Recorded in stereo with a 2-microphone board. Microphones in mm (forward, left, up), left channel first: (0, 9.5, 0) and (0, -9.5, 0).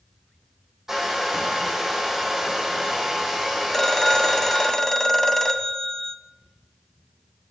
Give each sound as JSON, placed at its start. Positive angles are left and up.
{"t": 0.9, "sound": "a hair dryer", "side_deg": -20, "distance_m": 2.5}
{"t": 3.7, "sound": "a phone ringing", "side_deg": 25, "distance_m": 0.6}